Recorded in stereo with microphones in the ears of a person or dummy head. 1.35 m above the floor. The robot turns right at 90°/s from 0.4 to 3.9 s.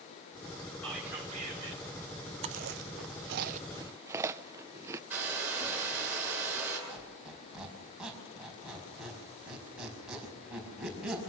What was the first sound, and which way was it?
Whispering, 170° left.